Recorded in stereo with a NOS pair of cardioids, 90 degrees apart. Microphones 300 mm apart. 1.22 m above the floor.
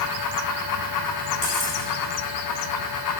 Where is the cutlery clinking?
25° left, 2.5 m.